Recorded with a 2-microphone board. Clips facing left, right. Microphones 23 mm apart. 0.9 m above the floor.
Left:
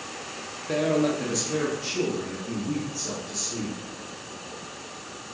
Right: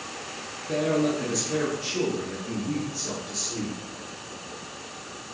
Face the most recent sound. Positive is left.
turn(degrees=-50)  # may be behind; listen again after turning